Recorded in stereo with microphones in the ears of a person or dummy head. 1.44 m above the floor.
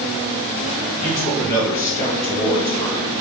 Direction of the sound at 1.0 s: 20° left (ahead or behind).